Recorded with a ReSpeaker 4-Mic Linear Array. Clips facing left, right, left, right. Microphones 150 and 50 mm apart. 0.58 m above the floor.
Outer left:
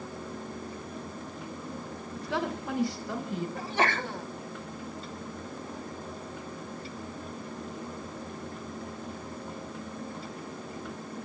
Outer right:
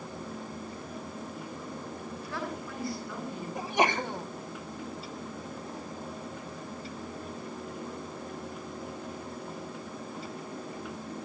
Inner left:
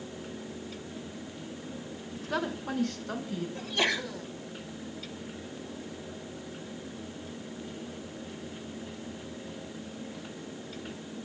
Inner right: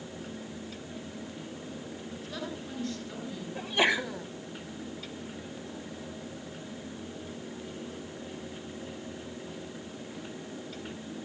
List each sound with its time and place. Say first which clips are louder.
2.1 s a woman speaking: outer left 7 dB, inner left 8 dB; 80° left, 5 m; by 3.5 s 85° left, 6.5 m
3.5 s a sneeze: outer right 3 dB, inner right 4 dB; 15° right (ahead or behind), 1.4 m